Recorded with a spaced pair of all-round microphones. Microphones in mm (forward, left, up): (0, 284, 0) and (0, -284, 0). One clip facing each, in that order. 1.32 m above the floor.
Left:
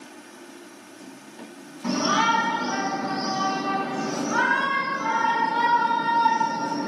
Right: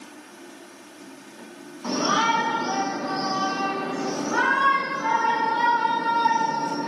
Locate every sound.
1.8 s a shout: 50° left (ahead or behind), 9.5 m; by 6.9 s 40° left (ahead or behind), 12.5 m